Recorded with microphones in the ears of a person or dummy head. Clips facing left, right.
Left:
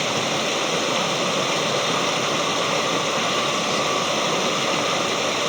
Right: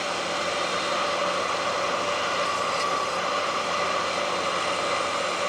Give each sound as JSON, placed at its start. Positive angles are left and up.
{"t": 0.0, "sound": "running water", "side_deg": 70}